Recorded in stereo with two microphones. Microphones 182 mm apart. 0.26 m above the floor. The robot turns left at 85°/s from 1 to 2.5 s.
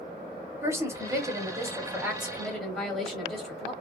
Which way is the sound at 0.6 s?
15° right (ahead or behind).